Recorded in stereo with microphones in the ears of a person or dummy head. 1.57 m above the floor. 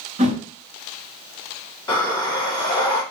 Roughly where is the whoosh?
Right.